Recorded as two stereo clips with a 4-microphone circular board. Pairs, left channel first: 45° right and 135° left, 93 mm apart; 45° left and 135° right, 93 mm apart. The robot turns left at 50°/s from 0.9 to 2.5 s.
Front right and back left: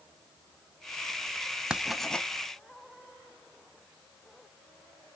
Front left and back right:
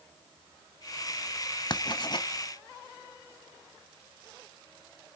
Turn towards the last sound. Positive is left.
turn(degrees=15)